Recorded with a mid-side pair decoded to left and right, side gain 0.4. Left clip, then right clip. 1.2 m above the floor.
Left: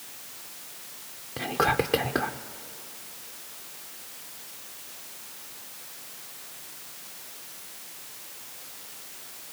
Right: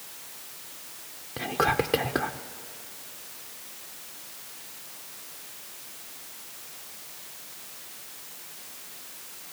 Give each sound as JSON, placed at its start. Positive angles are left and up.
{"t": 1.4, "sound": "whispering", "azimuth_deg": 0, "distance_m": 0.5}